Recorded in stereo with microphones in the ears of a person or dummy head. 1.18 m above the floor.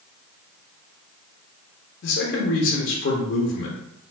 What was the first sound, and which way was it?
A man speaking, 60° left (ahead or behind).